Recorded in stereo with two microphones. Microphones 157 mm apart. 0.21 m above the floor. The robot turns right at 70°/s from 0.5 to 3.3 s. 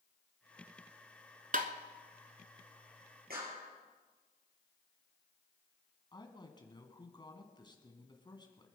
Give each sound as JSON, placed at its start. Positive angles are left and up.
{"t": 1.5, "sound": "tapping", "side_deg": -60, "distance_m": 1.2}
{"t": 3.3, "sound": "a clap", "side_deg": -75, "distance_m": 5.0}
{"t": 6.1, "sound": "a woman speaking", "side_deg": 30, "distance_m": 2.0}